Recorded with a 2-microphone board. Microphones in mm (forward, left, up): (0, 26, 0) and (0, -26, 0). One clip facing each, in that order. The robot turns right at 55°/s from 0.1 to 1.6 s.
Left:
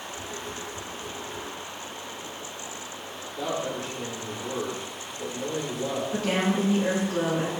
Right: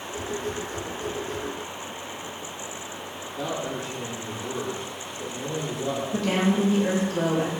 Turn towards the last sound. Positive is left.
turn(degrees=20)  # may be behind; listen again after turning